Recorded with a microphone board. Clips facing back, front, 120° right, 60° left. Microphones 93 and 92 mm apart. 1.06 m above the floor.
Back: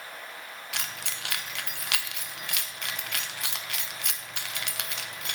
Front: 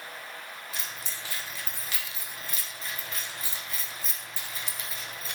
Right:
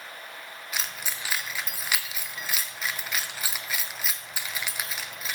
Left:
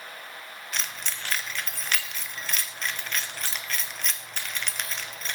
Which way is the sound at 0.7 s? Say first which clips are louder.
Back 4 dB, even; 155° left.